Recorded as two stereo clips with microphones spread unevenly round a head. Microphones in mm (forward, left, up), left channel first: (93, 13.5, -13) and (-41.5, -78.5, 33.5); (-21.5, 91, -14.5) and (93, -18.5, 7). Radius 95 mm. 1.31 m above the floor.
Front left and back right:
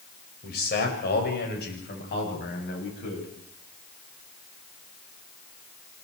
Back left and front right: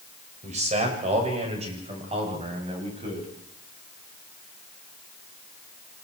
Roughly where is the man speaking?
Ahead.